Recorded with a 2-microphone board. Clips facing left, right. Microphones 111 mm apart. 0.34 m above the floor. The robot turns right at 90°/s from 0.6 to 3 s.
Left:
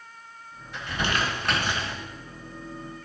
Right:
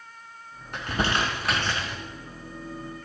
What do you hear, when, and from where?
0.7 s crumpling: 65° right (ahead or behind), 3.5 m; by 2.0 s 40° left (ahead or behind), 3.5 m